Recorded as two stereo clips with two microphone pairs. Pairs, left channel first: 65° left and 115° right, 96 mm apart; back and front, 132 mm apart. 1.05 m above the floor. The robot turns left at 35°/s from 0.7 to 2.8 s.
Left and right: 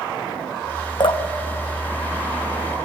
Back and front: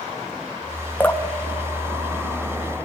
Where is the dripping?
105° left, 0.9 m; by 1.2 s 95° left, 0.9 m.